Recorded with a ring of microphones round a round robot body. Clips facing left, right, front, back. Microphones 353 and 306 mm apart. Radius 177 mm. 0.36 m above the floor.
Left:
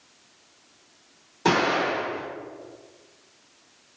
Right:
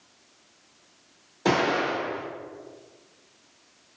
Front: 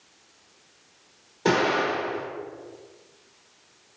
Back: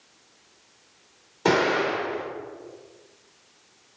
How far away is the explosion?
About 1.5 m.